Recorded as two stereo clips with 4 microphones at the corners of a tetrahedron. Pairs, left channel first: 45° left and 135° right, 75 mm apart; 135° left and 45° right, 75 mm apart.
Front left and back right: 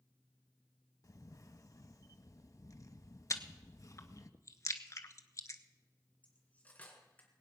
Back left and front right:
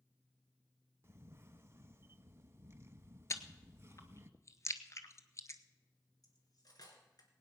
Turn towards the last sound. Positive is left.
turn(degrees=115)